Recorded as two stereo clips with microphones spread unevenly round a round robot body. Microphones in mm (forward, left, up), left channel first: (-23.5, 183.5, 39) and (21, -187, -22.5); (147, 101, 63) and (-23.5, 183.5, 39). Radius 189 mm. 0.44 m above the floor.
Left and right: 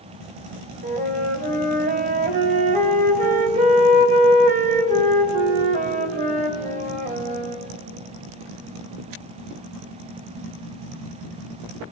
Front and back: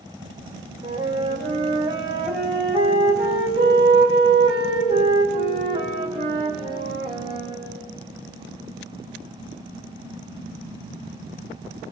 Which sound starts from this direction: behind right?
A flute, at 0.8 s.